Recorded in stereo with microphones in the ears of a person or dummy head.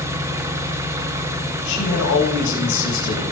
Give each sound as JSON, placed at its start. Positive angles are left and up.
{"t": 0.0, "sound": "an engine running", "side_deg": -10, "distance_m": 1.0}
{"t": 1.6, "sound": "a man speaking", "side_deg": 70, "distance_m": 3.0}